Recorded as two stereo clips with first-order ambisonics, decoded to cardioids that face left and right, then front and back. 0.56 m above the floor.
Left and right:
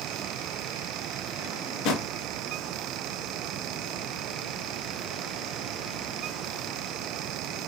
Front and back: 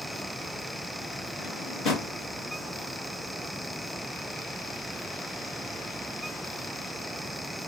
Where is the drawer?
65° left, 1.6 m.